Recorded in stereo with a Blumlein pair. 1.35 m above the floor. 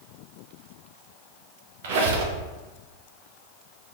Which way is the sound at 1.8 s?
55° right.